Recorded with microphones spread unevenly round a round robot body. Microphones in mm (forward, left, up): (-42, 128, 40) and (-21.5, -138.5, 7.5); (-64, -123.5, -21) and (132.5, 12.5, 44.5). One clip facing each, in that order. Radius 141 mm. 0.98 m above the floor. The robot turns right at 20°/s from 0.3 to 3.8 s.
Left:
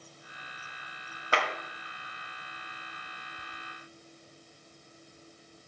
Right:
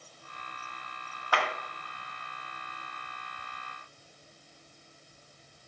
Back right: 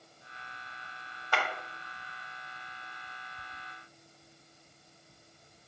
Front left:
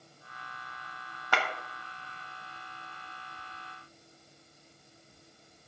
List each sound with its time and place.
1.3 s a clap: 25° left, 1.4 m; by 1.5 s 30° left, 1.4 m